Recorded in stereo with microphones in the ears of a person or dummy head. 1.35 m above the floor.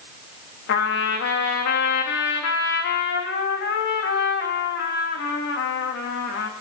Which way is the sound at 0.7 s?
60° left (ahead or behind).